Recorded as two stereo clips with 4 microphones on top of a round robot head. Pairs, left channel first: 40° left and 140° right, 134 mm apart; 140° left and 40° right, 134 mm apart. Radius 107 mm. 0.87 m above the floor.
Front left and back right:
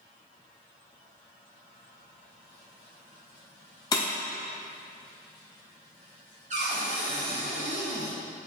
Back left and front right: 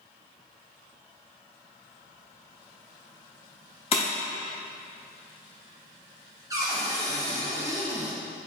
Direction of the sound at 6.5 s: 105° right.